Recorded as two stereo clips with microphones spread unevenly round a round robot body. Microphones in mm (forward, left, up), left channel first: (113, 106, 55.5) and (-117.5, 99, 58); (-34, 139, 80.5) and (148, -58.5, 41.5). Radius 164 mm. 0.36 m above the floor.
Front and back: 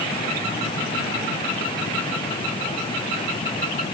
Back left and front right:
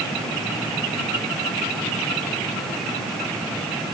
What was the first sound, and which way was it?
Only background noise.